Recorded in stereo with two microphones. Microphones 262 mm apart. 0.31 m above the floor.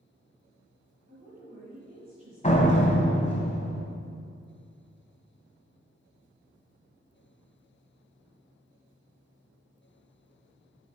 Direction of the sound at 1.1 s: 30° right (ahead or behind).